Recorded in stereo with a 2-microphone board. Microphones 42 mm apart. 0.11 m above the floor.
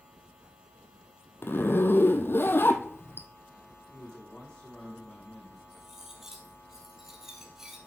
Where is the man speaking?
20° left (ahead or behind), 3 m.